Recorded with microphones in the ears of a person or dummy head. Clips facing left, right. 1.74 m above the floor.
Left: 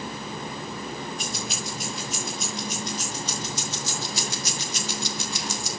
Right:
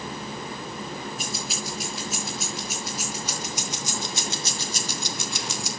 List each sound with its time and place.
1.2 s keys jangling: centre (ahead or behind), 6 m; by 5.7 s 60° right (ahead or behind), 1.4 m